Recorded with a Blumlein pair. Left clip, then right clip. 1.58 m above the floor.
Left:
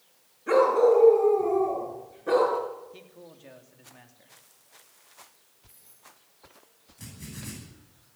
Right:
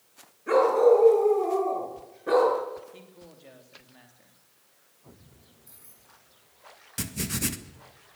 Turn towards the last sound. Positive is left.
turn(degrees=-45)